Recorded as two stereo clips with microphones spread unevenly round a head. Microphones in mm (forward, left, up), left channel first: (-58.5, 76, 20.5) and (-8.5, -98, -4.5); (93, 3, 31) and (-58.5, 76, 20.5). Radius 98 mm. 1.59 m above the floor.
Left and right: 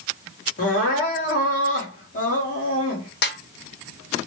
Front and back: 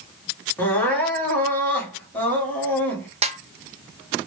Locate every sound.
0.6 s crying: 55° left, 1.7 m
3.2 s a snare drum: 105° left, 0.6 m